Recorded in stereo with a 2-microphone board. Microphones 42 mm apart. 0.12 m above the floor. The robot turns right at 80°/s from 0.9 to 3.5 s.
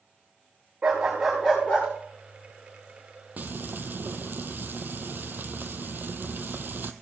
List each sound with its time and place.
0.8 s a dog barking: 25° right, 5.5 m; by 1.9 s 55° left, 5.5 m
3.4 s frying: 40° right (ahead or behind), 0.7 m; by 6.9 s 55° right (ahead or behind), 0.7 m